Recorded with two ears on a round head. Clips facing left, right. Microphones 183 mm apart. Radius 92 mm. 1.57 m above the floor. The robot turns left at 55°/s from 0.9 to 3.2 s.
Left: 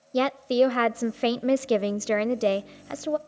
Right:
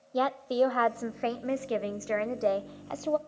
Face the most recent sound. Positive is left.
turn(degrees=10)